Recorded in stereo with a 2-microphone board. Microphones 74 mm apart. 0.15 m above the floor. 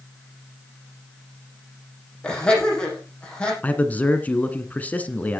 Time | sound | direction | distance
2.2 | laughter | 10° left (ahead or behind) | 7 m
3.6 | a man speaking | 20° left (ahead or behind) | 1.7 m